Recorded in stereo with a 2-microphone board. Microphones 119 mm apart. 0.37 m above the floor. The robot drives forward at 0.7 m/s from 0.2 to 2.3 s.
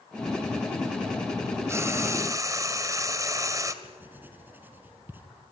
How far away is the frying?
About 1.9 m.